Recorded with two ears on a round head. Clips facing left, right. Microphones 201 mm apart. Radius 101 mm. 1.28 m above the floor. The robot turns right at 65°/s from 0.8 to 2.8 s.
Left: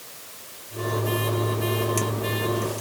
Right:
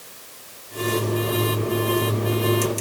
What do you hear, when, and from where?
Only background noise.